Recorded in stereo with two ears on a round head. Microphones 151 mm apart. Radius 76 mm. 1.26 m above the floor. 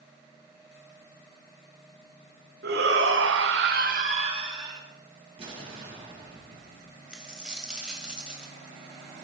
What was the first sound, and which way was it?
A shout, 70° right (ahead or behind).